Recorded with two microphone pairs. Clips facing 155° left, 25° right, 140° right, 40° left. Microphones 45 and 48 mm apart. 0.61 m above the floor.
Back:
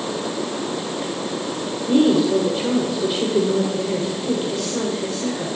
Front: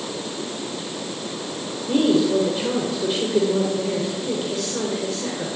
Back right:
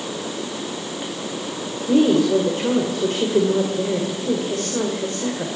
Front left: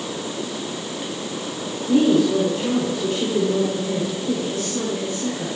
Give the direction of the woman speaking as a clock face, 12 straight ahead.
4 o'clock.